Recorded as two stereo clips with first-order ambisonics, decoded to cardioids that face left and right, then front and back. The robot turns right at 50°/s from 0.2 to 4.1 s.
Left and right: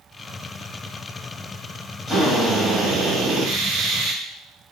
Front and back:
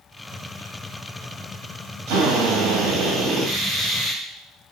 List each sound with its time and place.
2.1 s a drill: 175° left, 2 m; by 4.2 s 85° right, 2 m